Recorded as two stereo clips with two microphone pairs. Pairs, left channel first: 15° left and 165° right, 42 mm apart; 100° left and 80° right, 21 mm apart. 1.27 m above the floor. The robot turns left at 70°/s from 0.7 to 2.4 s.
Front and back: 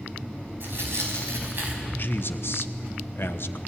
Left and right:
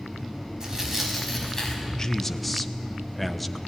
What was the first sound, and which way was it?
Tearing paper, 135° right.